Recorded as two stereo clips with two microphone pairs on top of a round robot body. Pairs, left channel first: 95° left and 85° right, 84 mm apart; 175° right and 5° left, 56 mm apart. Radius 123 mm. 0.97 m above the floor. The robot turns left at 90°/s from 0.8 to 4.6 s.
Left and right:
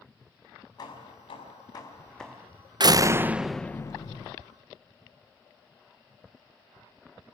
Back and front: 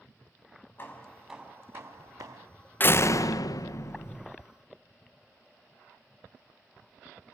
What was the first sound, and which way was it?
Hammering, 135° left.